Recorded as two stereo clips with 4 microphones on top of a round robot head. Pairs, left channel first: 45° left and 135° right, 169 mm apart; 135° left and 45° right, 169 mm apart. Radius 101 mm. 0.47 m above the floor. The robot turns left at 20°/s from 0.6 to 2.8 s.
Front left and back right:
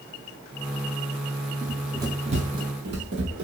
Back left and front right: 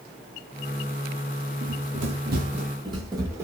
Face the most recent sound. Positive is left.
turn(degrees=-120)